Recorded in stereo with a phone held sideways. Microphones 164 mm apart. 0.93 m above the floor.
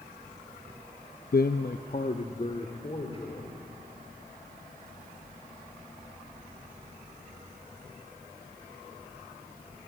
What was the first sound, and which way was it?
A man speaking, 65° left (ahead or behind).